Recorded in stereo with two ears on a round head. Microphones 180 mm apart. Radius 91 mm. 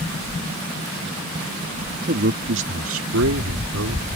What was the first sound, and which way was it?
A man speaking, 50° right (ahead or behind).